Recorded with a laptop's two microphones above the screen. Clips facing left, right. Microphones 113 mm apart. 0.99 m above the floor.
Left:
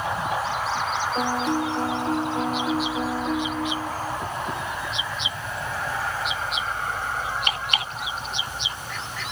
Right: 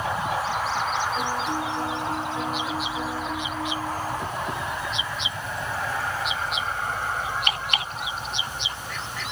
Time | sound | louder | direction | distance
1.1 | a piano | left 3 dB | 55° left (ahead or behind) | 1.6 m